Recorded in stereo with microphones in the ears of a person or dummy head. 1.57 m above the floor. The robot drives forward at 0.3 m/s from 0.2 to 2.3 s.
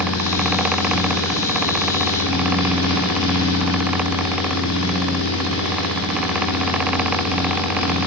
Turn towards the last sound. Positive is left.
turn(degrees=75)  # may be behind; listen again after turning